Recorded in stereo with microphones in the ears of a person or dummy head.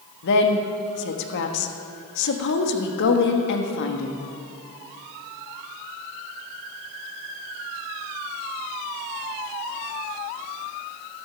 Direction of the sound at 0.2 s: 60° left (ahead or behind).